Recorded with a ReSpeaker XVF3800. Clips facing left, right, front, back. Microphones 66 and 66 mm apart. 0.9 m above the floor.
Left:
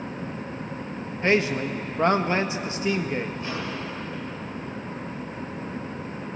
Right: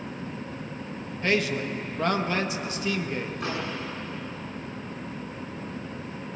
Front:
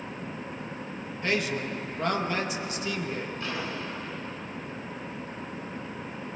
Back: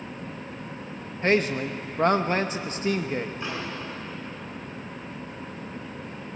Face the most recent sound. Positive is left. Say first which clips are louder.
# even, back 1 dB
turn(degrees=-115)